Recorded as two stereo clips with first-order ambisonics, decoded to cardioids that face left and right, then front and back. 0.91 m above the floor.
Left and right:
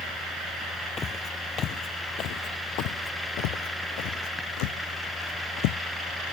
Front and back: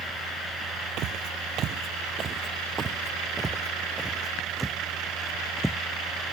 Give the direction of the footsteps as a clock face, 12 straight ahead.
7 o'clock.